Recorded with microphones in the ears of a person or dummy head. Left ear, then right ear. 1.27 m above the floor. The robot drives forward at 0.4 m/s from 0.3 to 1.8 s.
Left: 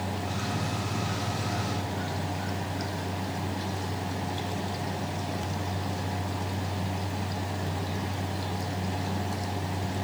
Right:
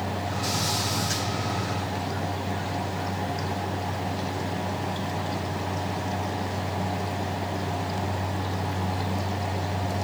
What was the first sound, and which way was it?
Only background noise.